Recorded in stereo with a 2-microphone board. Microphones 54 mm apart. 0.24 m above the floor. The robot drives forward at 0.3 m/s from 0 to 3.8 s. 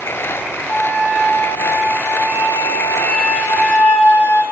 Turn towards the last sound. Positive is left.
turn(degrees=50)  # may be behind; listen again after turning